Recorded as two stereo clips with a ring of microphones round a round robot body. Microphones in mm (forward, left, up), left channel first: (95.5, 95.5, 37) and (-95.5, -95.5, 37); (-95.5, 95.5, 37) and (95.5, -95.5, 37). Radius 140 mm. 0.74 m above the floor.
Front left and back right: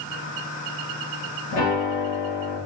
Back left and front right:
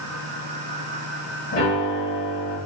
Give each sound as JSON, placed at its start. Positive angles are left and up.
{"t": 1.5, "sound": "a piano", "azimuth_deg": 90, "distance_m": 2.0}